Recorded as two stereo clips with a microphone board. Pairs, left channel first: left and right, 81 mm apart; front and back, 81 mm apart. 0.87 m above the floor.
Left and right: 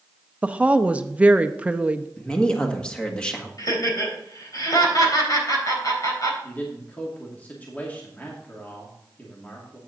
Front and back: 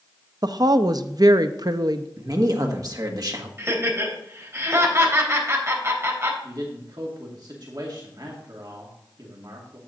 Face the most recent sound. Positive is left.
turn(degrees=155)